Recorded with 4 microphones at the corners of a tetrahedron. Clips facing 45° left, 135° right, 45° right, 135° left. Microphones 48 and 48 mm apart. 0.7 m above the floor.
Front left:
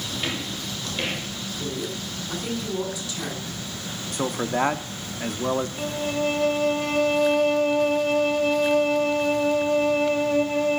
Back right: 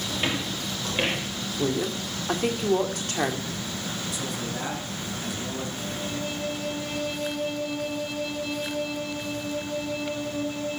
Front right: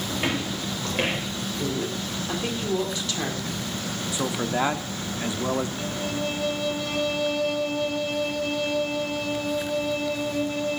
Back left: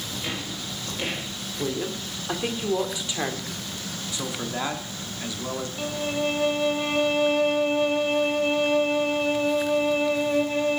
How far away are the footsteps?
About 4 m.